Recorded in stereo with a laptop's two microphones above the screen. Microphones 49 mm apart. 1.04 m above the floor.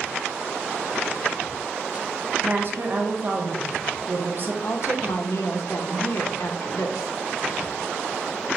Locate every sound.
2.4 s a woman speaking: 45° right (ahead or behind), 0.7 m
4.6 s a woman speaking: 75° left (ahead or behind), 0.7 m